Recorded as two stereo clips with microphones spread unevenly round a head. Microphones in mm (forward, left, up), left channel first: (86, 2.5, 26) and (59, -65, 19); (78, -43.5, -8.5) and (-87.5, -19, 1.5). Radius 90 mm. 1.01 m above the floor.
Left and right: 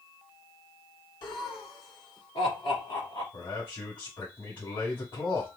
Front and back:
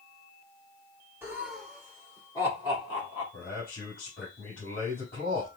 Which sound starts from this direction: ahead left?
A man speaking, at 3.3 s.